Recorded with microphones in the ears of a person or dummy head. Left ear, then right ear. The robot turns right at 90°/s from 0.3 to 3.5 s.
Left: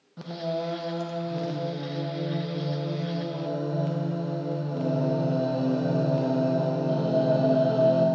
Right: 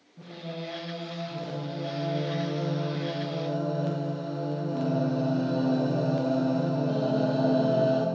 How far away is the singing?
About 0.6 m.